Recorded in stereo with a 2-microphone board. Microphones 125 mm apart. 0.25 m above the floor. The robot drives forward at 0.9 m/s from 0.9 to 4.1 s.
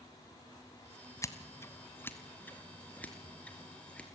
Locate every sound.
1.2 s scissors: 25° left (ahead or behind), 1.5 m; by 4.1 s 10° left (ahead or behind), 4 m